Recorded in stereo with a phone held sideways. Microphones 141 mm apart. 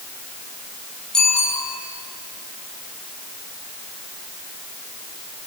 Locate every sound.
1.1 s a bicycle bell: 5° left (ahead or behind), 9 m